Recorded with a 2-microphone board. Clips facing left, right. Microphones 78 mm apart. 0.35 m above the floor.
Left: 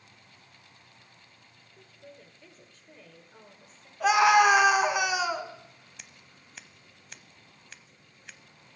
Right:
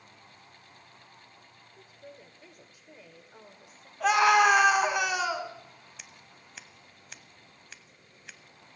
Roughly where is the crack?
I don't hear a crack.